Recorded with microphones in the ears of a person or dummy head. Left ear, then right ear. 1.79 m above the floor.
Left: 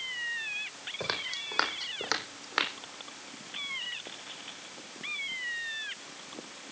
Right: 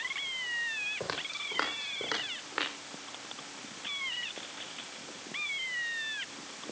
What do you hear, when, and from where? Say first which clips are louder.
1.0 s footsteps: left 2 dB; 20° left (ahead or behind), 4.5 m; by 2.7 s 40° left (ahead or behind), 5 m